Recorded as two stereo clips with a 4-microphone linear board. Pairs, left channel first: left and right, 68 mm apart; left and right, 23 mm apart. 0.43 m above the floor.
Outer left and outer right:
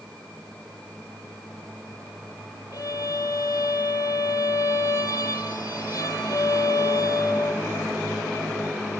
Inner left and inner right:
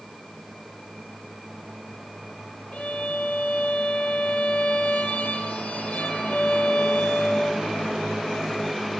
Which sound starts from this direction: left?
A violin, at 2.7 s.